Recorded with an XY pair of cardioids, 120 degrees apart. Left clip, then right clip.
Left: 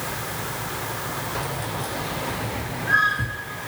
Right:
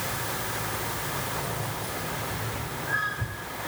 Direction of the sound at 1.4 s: 60° left.